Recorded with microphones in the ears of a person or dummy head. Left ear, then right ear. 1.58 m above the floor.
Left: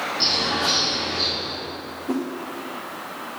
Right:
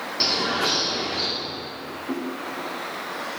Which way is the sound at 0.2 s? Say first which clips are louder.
Even; 40° right (ahead or behind).